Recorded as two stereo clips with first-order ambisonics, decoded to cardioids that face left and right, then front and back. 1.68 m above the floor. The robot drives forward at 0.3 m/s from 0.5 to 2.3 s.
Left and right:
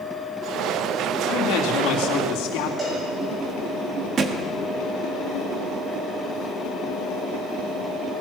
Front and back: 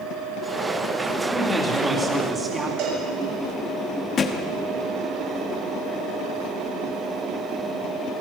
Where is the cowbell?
155° right, 7 m.